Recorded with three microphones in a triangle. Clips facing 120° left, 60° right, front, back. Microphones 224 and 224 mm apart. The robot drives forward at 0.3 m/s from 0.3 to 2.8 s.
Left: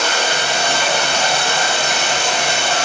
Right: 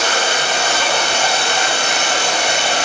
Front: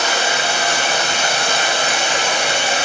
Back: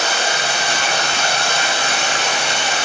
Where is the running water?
30° right, 2 m; by 2.9 s 45° right, 1.5 m.